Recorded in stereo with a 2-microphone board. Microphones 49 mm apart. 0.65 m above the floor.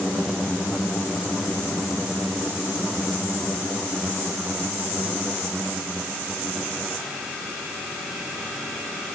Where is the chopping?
I don't hear chopping.